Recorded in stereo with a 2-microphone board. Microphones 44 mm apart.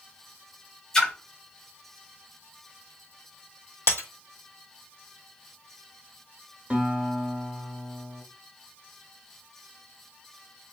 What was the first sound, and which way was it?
A splash, 15° left (ahead or behind).